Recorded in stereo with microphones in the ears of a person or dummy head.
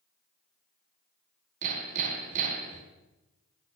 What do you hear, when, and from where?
1.6 s hammering: 45° right (ahead or behind), 3 m